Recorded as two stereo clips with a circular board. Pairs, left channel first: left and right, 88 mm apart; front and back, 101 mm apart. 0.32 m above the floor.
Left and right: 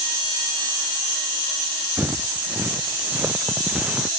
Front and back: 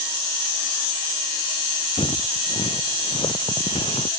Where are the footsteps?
20° right; by 4.1 s 15° right.